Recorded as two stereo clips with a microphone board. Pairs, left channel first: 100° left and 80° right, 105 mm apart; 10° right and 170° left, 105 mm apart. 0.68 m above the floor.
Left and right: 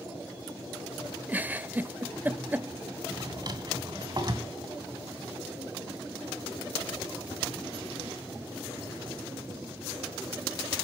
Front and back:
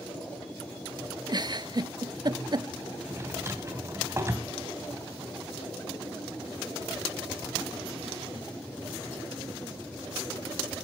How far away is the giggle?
About 0.5 m.